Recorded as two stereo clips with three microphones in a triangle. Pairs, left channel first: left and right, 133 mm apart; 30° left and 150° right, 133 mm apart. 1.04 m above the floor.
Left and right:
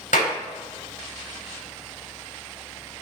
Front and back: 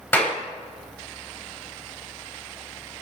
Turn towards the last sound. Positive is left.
turn(degrees=105)